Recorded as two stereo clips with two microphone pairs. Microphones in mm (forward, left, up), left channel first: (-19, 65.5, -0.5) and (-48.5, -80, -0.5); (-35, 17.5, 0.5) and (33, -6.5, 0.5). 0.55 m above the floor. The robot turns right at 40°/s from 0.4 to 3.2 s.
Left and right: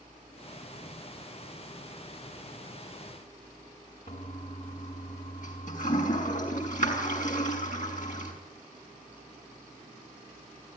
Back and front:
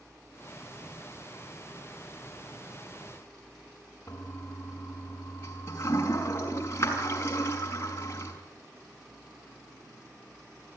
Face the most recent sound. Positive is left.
turn(degrees=110)